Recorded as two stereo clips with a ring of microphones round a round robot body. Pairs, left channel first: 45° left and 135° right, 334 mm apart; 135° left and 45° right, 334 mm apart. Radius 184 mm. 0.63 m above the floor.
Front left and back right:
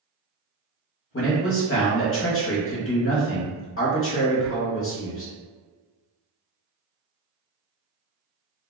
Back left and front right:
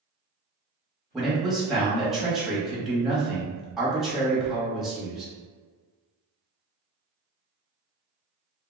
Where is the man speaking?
45° left, 1.1 m.